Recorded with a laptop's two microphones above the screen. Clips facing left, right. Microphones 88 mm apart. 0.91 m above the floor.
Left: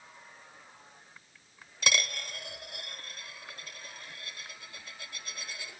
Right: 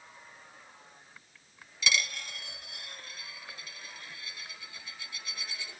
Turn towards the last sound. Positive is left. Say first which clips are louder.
# left 1 dB
turn(degrees=50)  # may be behind; listen again after turning